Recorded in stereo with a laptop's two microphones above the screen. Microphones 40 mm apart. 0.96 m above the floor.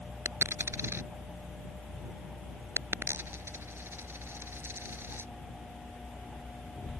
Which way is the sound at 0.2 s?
80° right.